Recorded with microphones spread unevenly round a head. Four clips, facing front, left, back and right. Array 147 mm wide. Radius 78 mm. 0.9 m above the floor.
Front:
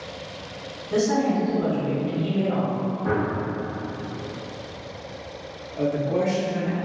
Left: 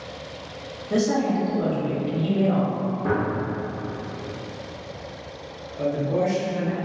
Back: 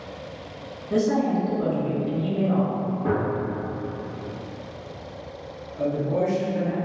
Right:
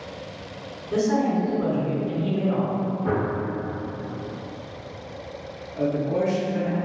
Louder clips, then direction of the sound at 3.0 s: Left 1 dB, even; 130° left.